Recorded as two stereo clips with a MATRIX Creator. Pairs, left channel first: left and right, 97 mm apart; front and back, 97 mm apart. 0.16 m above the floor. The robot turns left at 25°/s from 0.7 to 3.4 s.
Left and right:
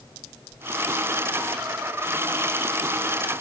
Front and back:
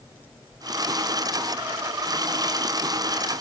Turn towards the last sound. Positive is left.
No sound to turn to.